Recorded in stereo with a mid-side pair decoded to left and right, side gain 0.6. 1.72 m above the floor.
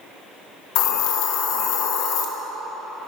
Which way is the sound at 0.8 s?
65° left.